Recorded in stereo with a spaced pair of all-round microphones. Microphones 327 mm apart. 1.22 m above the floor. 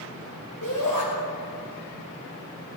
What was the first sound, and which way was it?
A shout, 70° left (ahead or behind).